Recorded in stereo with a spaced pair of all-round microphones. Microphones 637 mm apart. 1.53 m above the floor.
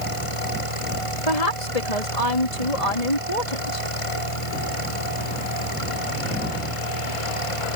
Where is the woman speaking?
90° left.